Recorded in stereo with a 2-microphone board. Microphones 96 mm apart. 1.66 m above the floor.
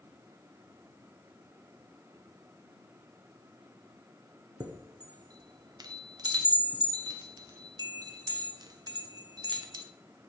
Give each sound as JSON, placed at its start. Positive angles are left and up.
{"t": 4.6, "sound": "a chime", "side_deg": -45, "distance_m": 0.7}